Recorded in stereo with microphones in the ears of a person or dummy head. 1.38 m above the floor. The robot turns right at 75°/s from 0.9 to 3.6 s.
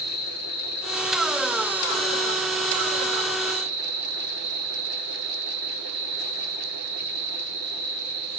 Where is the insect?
95° left, 2.5 m; by 8.4 s 65° right, 2.5 m.